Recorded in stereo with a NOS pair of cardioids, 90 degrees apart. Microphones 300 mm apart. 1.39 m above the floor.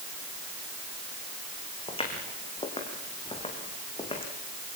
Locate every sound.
1.9 s footsteps: 20° left, 6 m